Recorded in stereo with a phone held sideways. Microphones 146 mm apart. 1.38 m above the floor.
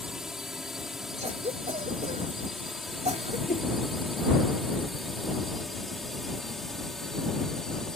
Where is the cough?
55° right (ahead or behind).